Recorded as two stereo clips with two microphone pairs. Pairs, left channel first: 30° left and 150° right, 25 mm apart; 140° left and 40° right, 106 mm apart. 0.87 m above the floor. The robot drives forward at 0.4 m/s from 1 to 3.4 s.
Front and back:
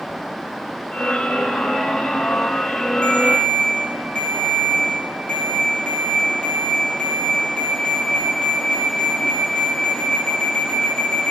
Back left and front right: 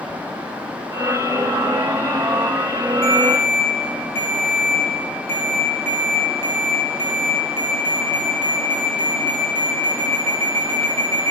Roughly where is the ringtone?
Left.